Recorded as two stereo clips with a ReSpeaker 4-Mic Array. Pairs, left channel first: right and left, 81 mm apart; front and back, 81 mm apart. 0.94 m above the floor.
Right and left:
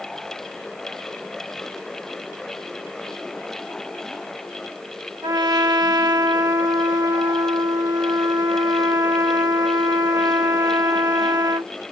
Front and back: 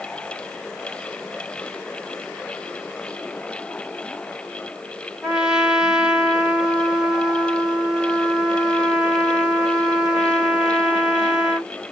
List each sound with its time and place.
5.2 s a trumpet: 100° left, 1.1 m